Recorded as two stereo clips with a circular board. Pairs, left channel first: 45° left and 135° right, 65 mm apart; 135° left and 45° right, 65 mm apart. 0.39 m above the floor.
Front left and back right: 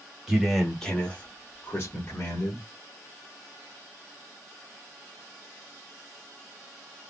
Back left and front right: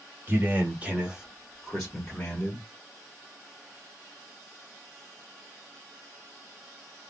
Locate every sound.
0.3 s a man speaking: 60° right, 1.1 m; by 2.6 s 65° left, 1.5 m